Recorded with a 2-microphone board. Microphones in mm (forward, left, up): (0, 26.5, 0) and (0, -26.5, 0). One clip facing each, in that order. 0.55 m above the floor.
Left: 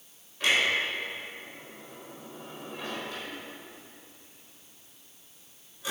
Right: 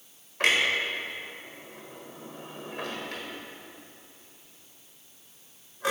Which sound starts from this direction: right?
A clunk, at 0.4 s.